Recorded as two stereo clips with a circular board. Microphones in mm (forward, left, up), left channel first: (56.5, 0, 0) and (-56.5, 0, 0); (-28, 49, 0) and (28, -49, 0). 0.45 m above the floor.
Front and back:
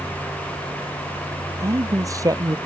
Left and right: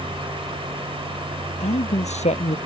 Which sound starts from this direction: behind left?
A man speaking, at 1.6 s.